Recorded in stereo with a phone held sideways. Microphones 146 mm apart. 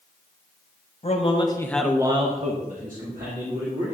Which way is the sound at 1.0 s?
50° left (ahead or behind).